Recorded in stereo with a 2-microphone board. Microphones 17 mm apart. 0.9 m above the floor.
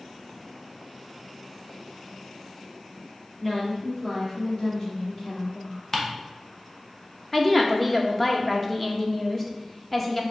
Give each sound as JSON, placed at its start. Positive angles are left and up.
{"t": 3.4, "sound": "a woman speaking", "side_deg": 25, "distance_m": 1.9}
{"t": 5.9, "sound": "ticking", "side_deg": 25, "distance_m": 0.8}
{"t": 7.3, "sound": "a woman speaking", "side_deg": 15, "distance_m": 0.7}